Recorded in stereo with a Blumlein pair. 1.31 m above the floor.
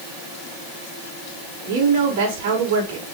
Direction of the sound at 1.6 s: 55° right.